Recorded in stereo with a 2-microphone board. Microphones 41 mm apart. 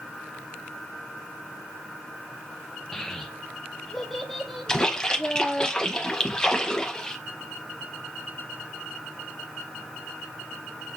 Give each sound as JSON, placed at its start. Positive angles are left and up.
{"t": 2.9, "sound": "a child speaking", "side_deg": 10, "distance_m": 0.7}
{"t": 4.7, "sound": "a splash", "side_deg": 20, "distance_m": 0.9}